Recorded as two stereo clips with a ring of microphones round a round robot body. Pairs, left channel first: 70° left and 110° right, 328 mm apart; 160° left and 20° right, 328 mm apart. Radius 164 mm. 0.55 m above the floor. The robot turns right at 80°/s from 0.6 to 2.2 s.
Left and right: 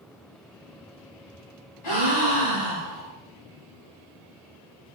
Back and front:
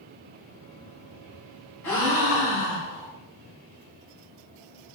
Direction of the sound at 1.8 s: 70° left.